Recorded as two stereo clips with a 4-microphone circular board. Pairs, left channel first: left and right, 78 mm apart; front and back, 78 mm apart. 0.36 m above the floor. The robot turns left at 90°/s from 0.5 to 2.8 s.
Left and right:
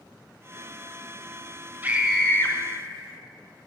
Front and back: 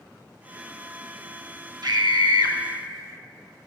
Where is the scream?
155° right, 3 m; by 2.6 s 140° left, 3 m.